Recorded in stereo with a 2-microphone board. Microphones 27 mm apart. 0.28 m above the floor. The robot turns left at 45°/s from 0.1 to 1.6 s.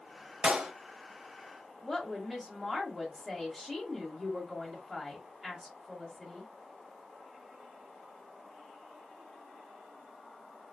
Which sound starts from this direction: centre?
A woman speaking, at 1.8 s.